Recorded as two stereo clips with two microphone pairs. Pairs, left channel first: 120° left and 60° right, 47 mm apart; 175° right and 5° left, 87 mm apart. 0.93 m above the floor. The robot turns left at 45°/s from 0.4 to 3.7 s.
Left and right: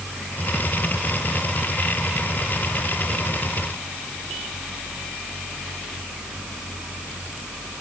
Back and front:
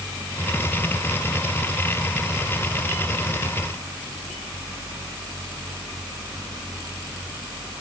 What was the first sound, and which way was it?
Only background noise.